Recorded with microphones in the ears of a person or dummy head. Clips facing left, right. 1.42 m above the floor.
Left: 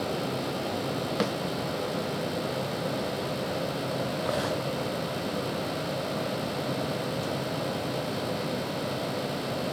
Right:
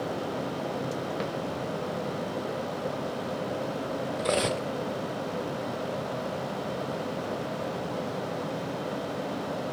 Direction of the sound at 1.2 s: 60° left (ahead or behind).